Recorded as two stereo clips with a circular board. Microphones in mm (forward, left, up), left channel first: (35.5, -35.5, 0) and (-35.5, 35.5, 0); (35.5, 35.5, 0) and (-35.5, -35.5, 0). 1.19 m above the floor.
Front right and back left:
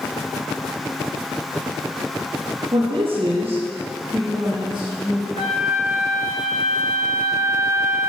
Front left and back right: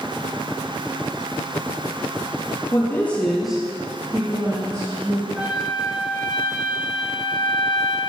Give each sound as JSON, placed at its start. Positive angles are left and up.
{"t": 2.7, "sound": "a woman speaking", "azimuth_deg": 105, "distance_m": 1.2}
{"t": 5.3, "sound": "a flute", "azimuth_deg": -50, "distance_m": 2.0}